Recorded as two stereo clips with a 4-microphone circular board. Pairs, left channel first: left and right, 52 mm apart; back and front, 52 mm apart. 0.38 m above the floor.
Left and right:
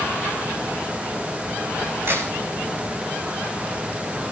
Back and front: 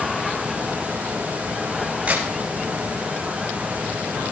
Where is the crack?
60° right, 10 m.